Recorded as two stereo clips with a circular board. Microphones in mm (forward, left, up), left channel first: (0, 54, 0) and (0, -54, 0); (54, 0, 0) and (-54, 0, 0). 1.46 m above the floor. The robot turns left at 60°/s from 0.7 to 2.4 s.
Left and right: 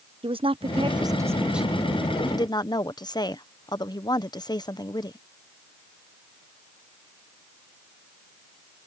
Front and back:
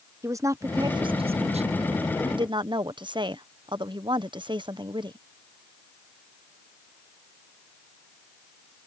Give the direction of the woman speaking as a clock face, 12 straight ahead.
4 o'clock.